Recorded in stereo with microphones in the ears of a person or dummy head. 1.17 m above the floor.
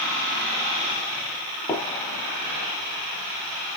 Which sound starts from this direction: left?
A gunshot, at 1.7 s.